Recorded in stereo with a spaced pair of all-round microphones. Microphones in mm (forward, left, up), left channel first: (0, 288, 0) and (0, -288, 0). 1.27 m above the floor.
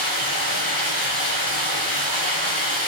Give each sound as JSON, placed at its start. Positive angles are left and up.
{"t": 0.0, "sound": "running water", "side_deg": 30, "distance_m": 2.0}